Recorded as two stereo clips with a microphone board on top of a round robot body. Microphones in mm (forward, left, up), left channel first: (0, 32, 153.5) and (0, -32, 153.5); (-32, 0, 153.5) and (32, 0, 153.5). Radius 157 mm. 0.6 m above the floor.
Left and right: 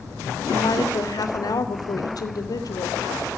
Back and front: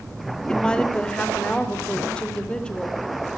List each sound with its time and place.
0.5 s a woman speaking: 105° left, 3 m